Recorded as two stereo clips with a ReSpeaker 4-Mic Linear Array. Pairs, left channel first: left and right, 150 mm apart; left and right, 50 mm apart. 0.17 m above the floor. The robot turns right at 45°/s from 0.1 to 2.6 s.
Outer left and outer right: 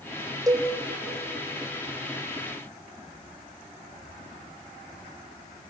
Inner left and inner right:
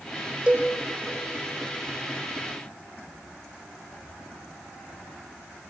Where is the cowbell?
20° right (ahead or behind), 3.5 m; by 0.7 s 35° right (ahead or behind), 3.5 m.